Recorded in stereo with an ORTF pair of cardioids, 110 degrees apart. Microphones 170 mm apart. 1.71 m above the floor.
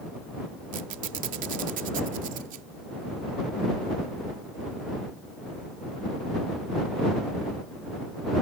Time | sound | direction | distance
0.7 | a squeak | 55° right | ?